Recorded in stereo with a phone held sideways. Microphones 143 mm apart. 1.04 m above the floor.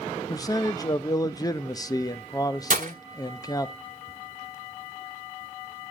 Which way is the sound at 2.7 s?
60° right (ahead or behind).